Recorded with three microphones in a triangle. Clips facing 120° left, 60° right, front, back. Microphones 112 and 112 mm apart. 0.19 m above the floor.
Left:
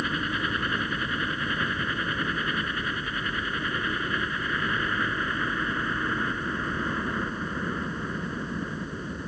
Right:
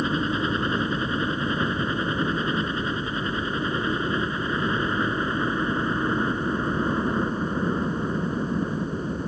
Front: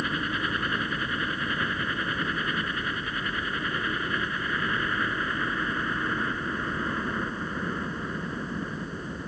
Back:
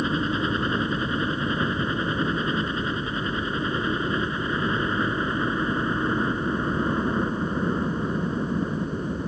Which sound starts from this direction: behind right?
A helicopter, at 0.0 s.